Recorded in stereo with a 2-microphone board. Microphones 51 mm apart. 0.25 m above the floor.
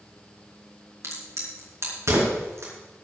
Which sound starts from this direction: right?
A crack, at 1.0 s.